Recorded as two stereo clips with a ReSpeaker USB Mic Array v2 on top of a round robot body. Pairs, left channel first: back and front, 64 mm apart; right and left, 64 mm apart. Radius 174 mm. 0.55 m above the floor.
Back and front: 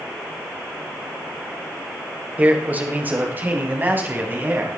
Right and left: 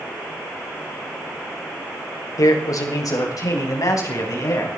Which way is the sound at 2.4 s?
65° right.